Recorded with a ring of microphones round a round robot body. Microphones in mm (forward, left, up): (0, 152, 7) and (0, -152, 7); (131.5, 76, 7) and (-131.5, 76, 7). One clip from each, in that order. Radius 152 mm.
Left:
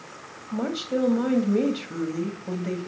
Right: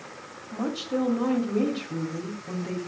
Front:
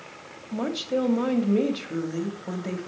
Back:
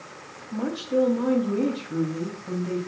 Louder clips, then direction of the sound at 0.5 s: Left 2 dB, back 2 dB; 30° left.